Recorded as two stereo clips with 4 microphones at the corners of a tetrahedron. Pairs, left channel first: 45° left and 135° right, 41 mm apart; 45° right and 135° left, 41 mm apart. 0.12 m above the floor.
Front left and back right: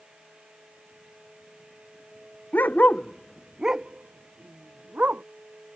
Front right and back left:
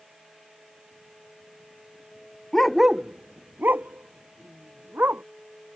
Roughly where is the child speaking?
I don't hear a child speaking.